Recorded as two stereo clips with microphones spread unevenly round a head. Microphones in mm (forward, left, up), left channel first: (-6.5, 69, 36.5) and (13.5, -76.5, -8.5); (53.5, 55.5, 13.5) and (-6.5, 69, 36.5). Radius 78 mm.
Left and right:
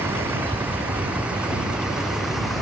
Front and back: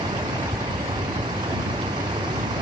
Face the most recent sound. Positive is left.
turn(degrees=-170)